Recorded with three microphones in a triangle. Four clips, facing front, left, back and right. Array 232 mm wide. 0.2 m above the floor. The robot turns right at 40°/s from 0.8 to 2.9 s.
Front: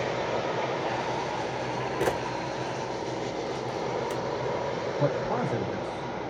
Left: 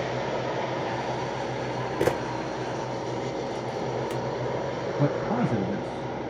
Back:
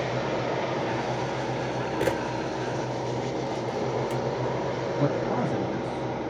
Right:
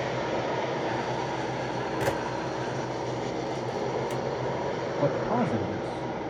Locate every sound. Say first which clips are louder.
2.0 s a camera shutter: left 5 dB, back 1 dB; 100° left, 0.9 m; by 4.2 s 140° left, 0.9 m
5.0 s a man speaking: even, back 1 dB; 95° left, 2 m